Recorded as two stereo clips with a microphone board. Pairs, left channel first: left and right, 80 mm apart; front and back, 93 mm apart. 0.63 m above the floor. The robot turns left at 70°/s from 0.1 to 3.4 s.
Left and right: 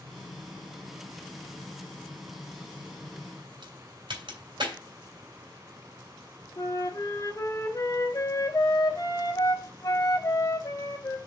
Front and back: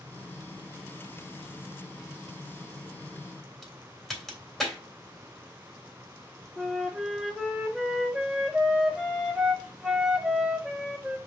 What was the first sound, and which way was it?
A crack, 90° right.